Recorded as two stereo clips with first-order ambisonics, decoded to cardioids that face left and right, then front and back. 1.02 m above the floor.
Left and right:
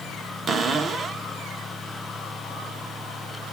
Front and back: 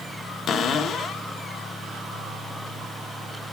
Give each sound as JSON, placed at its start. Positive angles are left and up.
{"t": 0.5, "sound": "a cupboard door", "azimuth_deg": -35, "distance_m": 0.6}